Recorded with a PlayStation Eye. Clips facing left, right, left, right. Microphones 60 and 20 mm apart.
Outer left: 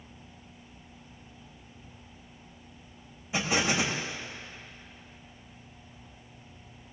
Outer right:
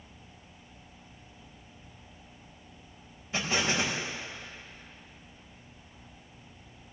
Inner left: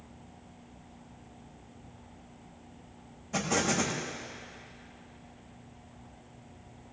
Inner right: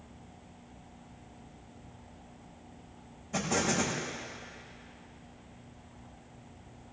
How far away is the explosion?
About 6 m.